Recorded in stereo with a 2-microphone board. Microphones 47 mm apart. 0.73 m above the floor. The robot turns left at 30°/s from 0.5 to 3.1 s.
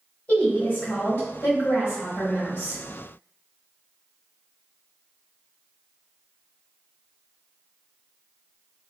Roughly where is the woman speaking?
Behind left.